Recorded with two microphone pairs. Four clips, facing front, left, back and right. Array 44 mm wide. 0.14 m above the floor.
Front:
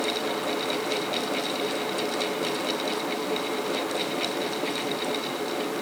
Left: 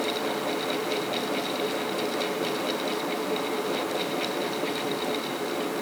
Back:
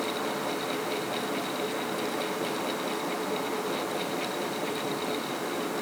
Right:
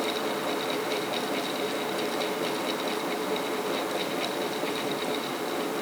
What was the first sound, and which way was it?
Only background noise.